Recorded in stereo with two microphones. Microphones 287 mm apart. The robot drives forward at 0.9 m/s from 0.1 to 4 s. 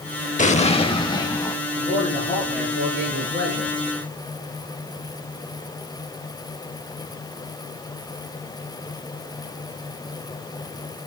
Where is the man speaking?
30° right (ahead or behind), 6 m; by 3.8 s 40° right (ahead or behind), 4.5 m.